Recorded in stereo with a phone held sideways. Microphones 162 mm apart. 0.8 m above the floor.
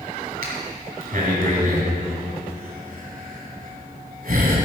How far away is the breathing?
About 2.5 m.